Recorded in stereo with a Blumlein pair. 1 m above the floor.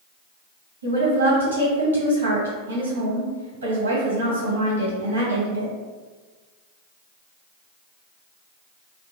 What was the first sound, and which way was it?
A woman speaking, 70° right.